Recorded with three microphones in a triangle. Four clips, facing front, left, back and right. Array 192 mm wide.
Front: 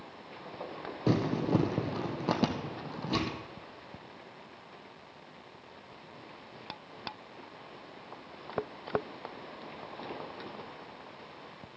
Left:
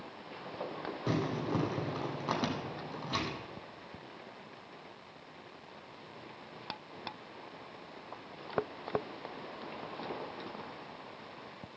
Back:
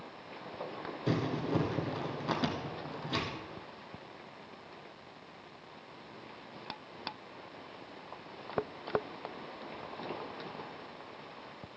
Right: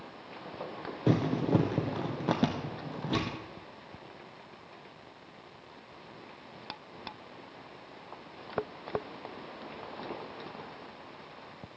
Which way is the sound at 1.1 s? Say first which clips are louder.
Right 7 dB, front 5 dB; 50° right.